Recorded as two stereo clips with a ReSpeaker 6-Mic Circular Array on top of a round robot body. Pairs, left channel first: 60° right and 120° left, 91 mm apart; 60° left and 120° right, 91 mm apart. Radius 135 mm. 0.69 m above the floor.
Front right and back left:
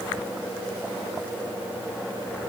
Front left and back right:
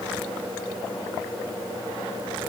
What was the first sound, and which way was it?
Only background noise.